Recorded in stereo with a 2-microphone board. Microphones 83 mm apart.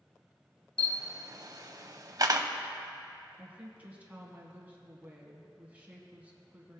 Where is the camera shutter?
50° right (ahead or behind), 0.6 m.